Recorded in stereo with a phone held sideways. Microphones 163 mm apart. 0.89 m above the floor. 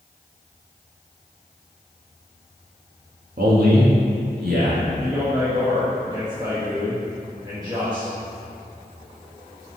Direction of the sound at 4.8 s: 25° right (ahead or behind).